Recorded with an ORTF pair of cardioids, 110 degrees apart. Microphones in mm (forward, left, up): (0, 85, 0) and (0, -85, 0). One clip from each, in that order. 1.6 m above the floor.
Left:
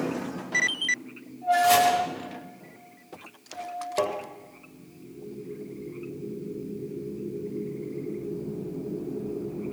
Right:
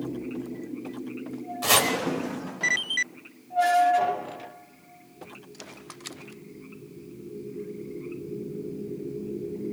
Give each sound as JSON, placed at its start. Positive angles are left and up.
{"t": 1.6, "sound": "chopping", "azimuth_deg": -30, "distance_m": 5.0}
{"t": 4.0, "sound": "tapping", "azimuth_deg": 65, "distance_m": 6.5}